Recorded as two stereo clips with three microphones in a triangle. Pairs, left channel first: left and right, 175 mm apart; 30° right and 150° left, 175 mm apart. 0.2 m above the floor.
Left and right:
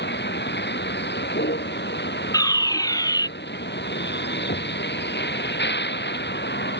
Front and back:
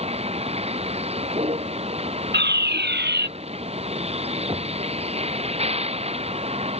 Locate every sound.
0.0 s a vehicle: 95° left
2.3 s a fire alarm: 160° left
4.5 s knocking: 90° left